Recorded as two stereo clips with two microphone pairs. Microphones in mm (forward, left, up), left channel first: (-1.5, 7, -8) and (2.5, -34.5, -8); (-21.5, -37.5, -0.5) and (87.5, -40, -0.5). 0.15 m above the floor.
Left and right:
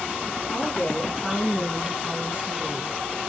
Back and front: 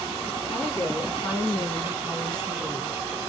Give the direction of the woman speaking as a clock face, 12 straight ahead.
7 o'clock.